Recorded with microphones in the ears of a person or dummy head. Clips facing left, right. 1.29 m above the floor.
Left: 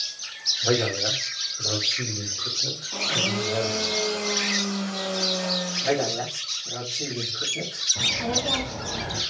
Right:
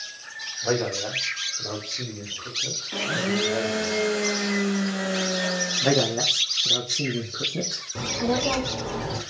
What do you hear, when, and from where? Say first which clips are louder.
0.6 s a man speaking: left 1 dB; 10° left (ahead or behind), 2.5 m
2.9 s a blender: right 3 dB; 15° right (ahead or behind), 0.7 m
5.8 s a man speaking: right 3 dB; 65° right (ahead or behind), 1.4 m
8.0 s a child speaking: right 4 dB; 80° right, 2.5 m